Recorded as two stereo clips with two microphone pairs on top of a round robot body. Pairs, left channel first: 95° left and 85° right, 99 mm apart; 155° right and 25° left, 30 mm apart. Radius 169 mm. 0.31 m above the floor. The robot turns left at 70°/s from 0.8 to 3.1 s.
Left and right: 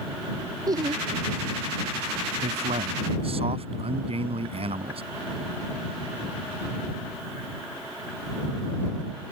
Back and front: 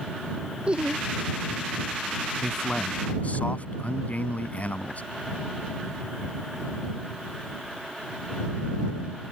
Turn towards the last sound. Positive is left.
turn(degrees=-105)